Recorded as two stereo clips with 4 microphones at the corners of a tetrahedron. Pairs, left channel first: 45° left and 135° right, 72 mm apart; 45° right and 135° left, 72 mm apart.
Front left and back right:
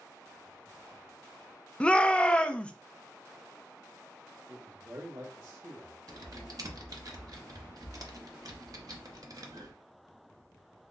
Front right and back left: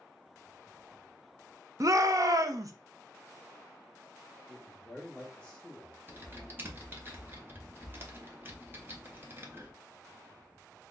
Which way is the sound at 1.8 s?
120° left.